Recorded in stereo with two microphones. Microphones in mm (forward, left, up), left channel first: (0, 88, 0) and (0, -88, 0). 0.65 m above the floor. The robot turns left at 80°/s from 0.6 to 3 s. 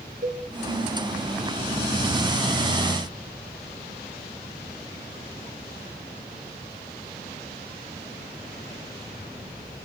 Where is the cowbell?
50° right (ahead or behind), 0.7 m.